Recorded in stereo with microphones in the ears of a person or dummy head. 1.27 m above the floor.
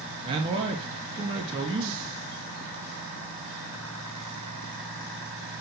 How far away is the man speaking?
About 1.5 m.